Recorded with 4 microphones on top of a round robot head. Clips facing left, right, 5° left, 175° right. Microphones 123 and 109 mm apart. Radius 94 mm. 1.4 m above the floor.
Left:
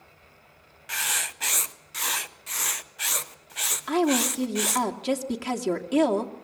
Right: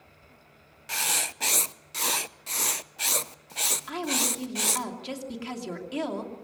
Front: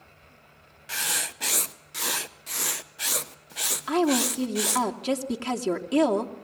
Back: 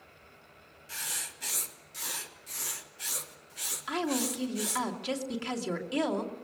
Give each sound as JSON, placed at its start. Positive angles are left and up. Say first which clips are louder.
{"t": 0.9, "sound": "writing", "louder": "right 1 dB, front 10 dB", "azimuth_deg": -30, "distance_m": 0.8}
{"t": 3.9, "sound": "a woman speaking", "louder": "left 9 dB, front 8 dB", "azimuth_deg": 50, "distance_m": 2.5}